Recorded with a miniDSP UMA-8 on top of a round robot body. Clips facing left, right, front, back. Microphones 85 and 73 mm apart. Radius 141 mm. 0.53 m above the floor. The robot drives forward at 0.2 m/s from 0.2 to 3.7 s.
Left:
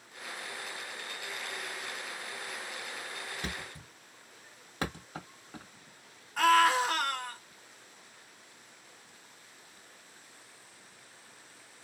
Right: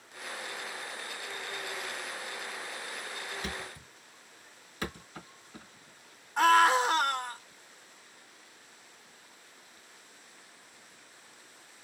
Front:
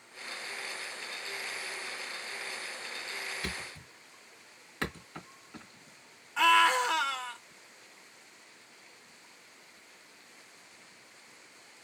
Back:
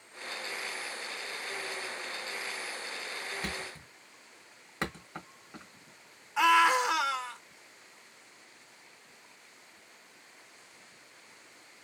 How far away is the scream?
About 1.0 m.